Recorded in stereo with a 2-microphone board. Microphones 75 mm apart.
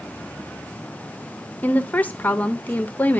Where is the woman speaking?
20° left (ahead or behind), 0.8 m.